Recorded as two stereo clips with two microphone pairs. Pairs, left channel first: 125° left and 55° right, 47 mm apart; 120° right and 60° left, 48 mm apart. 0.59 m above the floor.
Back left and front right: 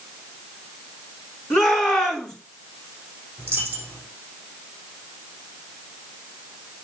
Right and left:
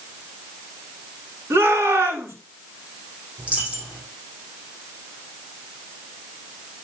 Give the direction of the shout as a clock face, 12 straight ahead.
11 o'clock.